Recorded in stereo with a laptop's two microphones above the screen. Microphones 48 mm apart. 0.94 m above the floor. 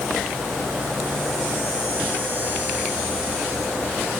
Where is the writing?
I don't hear writing.